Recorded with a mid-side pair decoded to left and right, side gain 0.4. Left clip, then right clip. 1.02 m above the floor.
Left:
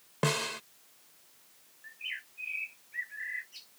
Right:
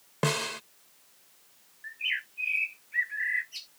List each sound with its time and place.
0.2 s a snare drum: 10° right
1.8 s a bird: 60° right